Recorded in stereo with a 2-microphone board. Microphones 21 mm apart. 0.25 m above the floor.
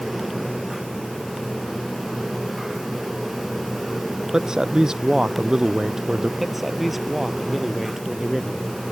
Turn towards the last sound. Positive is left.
turn(degrees=-15)  # may be behind; listen again after turning